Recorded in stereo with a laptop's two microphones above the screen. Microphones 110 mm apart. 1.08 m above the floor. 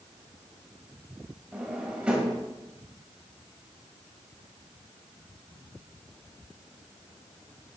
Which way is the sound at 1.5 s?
10° right (ahead or behind).